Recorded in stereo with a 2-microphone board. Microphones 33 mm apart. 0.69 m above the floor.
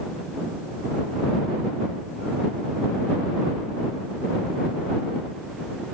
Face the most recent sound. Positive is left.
No sound to turn to.